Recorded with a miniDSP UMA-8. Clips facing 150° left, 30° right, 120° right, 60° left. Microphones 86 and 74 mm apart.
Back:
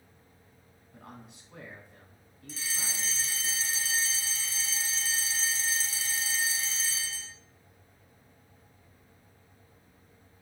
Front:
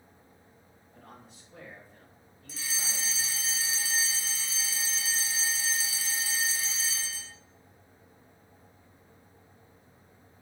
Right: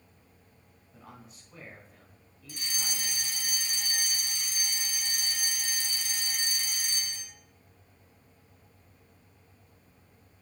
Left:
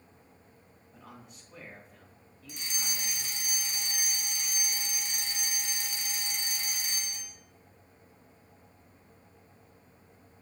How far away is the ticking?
No ticking in this recording.